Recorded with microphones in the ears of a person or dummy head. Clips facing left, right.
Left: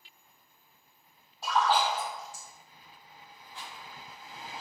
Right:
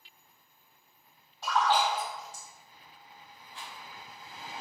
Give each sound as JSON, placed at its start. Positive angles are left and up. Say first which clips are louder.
{"t": 1.4, "sound": "a splash", "louder": "even", "side_deg": 10, "distance_m": 1.5}
{"t": 3.5, "sound": "a rattle", "louder": "even", "side_deg": 10, "distance_m": 1.4}